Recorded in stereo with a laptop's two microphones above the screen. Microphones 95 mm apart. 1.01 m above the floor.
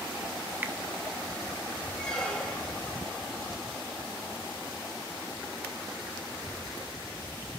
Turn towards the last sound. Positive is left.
turn(degrees=10)  # may be behind; listen again after turning